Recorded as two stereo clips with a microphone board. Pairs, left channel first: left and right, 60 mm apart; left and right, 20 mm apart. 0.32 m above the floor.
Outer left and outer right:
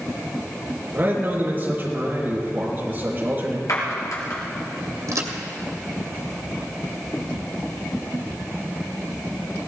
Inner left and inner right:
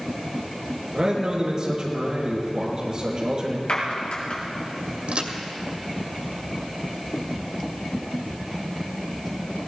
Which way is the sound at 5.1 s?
60° right (ahead or behind).